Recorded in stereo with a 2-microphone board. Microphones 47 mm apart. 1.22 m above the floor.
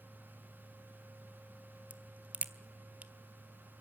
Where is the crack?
30° right (ahead or behind), 1.4 m.